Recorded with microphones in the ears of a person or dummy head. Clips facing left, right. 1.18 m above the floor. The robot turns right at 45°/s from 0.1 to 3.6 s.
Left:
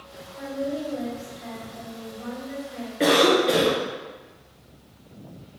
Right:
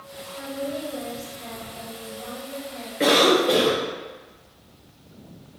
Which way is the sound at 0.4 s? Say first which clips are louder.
Left 2 dB; 65° right.